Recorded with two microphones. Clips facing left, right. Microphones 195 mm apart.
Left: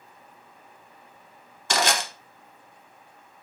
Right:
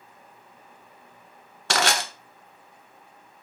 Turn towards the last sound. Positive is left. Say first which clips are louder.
# even
turn(degrees=-70)  # may be behind; listen again after turning